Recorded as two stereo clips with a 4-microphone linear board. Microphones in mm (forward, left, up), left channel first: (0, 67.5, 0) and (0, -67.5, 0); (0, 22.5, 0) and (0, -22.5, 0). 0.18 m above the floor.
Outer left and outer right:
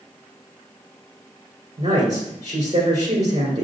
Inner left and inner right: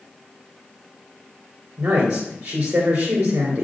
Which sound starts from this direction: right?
A woman speaking, at 1.8 s.